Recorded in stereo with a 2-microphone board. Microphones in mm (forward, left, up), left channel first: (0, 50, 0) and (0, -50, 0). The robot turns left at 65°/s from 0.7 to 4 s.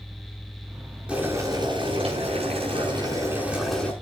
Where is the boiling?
10° right, 7 m; by 3.9 s 165° left, 7 m.